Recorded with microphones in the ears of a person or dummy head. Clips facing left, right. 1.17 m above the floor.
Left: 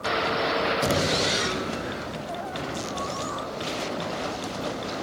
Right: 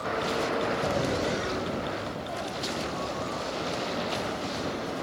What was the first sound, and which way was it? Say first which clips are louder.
Knocking: left 3 dB; 55° left (ahead or behind).